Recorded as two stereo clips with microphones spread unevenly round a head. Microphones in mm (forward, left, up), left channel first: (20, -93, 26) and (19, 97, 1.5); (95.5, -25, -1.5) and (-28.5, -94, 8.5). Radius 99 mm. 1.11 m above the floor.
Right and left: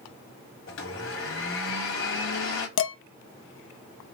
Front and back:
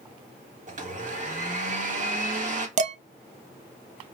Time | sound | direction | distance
0.7 | a blender | 115° right | 1.5 m
2.8 | dishes clattering | 115° right | 0.6 m